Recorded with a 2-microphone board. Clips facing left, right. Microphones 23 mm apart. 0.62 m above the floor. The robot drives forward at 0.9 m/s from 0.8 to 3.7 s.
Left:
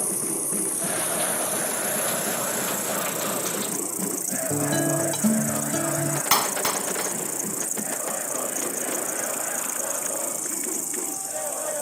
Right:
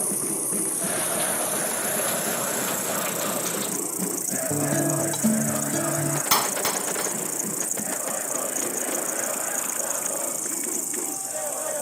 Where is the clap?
40° left (ahead or behind).